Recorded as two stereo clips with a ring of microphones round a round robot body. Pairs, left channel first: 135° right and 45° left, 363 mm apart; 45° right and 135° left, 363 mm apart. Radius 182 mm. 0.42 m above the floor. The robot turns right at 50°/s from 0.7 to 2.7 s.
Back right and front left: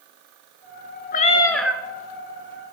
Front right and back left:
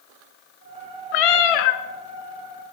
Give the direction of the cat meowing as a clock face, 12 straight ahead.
2 o'clock.